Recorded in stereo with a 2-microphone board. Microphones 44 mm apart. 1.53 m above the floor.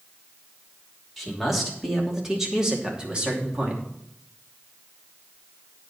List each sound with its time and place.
1.2 s a man speaking: centre (ahead or behind), 3 m; by 3.8 s 30° right (ahead or behind), 2.5 m